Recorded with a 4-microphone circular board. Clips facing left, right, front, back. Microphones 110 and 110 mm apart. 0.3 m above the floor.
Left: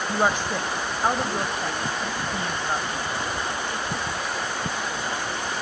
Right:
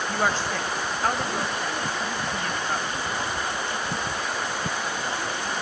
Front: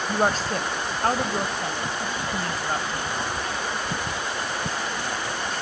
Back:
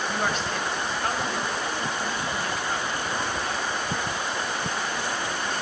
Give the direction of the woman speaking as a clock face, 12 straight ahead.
11 o'clock.